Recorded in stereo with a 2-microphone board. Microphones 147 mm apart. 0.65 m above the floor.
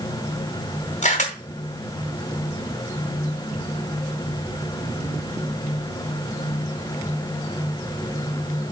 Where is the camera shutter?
55° left (ahead or behind), 2 m.